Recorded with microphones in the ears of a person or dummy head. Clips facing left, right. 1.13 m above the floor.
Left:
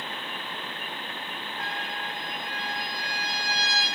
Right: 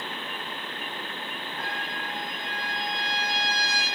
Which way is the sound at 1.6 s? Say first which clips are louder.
Even; 50° right (ahead or behind).